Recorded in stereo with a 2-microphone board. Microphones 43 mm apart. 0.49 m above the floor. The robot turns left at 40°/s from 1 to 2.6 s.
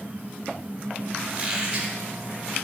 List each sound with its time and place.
1.3 s a squeak: 15° right (ahead or behind), 1.1 m; by 1.9 s 35° right (ahead or behind), 1.1 m